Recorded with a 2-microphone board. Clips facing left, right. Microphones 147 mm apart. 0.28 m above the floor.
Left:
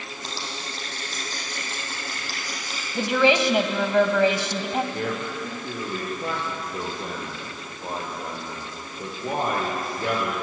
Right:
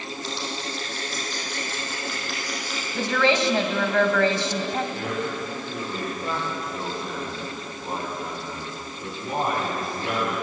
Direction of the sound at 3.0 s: 15° left (ahead or behind).